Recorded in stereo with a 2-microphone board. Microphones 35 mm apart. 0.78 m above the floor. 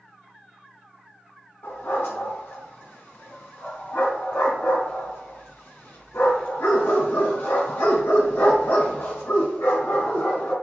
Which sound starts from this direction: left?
A dog barking, at 1.6 s.